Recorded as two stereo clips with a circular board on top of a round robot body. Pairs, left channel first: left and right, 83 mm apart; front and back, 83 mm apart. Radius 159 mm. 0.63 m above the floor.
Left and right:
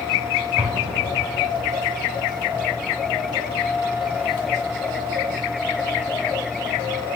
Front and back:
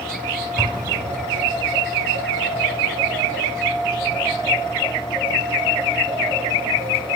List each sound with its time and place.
0.6 s an explosion: 150° right, 4 m